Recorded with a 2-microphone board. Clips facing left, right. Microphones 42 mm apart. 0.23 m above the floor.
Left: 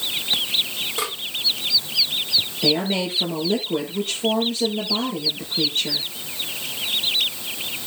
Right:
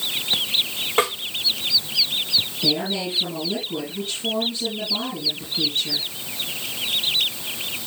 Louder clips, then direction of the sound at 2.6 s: Left 6 dB; 60° left (ahead or behind).